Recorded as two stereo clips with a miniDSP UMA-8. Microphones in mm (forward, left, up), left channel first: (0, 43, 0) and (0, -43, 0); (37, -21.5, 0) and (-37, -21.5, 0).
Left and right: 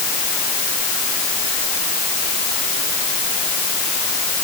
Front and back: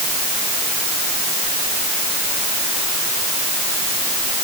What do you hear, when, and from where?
Only background noise.